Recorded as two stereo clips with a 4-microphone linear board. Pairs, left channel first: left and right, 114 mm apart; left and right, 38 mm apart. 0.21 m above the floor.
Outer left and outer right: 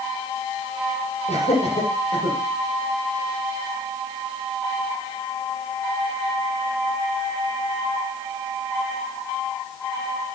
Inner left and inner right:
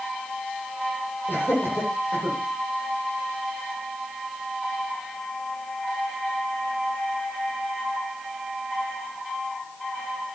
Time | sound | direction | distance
1.3 | laughter | 80° left | 9.5 m